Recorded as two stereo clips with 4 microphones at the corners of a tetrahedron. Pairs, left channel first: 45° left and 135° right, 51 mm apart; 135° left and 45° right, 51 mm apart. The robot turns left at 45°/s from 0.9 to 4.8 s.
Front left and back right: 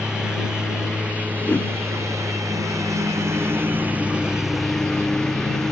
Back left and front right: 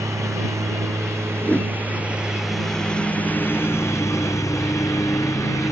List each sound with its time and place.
0.0 s a lawn mower: 60° right; by 5.7 s 125° left
1.4 s a whoosh: 90° left; by 1.7 s 75° left